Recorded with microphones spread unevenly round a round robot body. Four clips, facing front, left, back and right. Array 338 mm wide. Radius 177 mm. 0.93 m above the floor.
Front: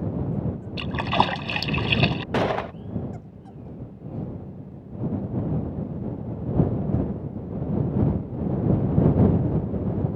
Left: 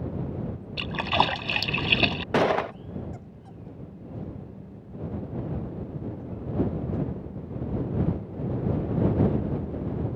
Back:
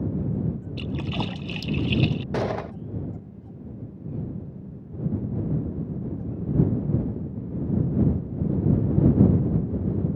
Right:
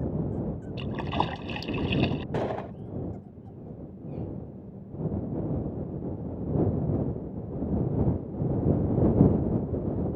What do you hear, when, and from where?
0.8 s a splash: 45° left
2.3 s a gunshot: 90° left